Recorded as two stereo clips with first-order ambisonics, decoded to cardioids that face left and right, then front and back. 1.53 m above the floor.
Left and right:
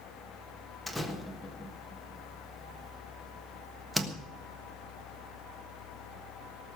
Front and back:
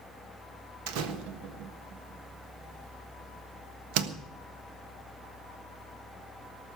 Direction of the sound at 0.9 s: Straight behind.